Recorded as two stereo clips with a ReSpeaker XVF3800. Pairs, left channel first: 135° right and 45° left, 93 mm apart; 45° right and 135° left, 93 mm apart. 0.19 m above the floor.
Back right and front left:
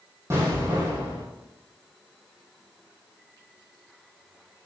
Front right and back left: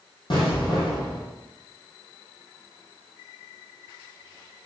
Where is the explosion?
15° right, 3 m.